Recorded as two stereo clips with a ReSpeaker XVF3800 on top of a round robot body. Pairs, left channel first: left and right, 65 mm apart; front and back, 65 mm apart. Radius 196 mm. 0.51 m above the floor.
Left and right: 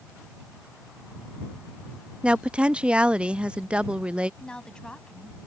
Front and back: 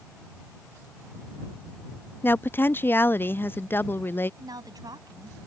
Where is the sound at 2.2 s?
25° right.